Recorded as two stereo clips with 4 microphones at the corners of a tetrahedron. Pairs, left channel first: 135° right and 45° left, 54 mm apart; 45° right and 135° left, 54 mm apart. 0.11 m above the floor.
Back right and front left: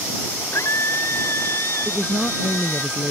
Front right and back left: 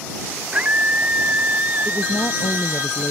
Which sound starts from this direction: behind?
A scream, at 0.5 s.